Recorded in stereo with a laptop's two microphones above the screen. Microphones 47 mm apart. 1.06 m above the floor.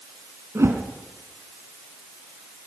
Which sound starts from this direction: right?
A whoosh, at 0.6 s.